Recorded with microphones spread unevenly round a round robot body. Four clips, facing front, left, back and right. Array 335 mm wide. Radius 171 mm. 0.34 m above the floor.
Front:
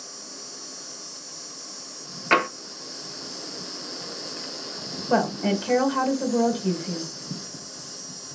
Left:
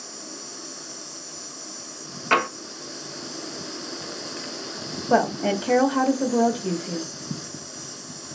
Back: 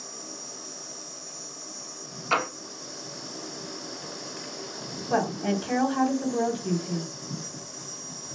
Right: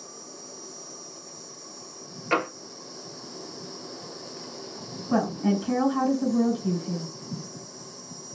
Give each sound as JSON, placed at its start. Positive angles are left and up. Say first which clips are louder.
{"t": 0.0, "sound": "an insect", "louder": "left 4 dB, back 1 dB", "azimuth_deg": 80, "distance_m": 1.1}
{"t": 2.3, "sound": "tapping", "louder": "left 4 dB, front 5 dB", "azimuth_deg": 40, "distance_m": 1.4}
{"t": 5.1, "sound": "a woman speaking", "louder": "left 4 dB, front 3 dB", "azimuth_deg": 55, "distance_m": 1.7}